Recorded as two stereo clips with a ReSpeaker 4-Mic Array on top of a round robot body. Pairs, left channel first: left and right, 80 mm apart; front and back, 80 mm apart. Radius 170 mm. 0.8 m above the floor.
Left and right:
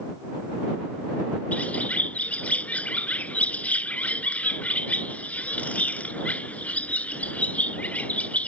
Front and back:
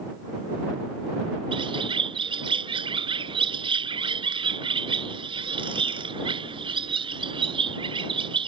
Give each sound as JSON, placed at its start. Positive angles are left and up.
{"t": 1.5, "sound": "a bird", "azimuth_deg": 165}